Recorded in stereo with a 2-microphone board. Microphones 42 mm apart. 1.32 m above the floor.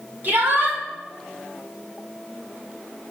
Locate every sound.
0.2 s a shout: 40° right (ahead or behind), 4.5 m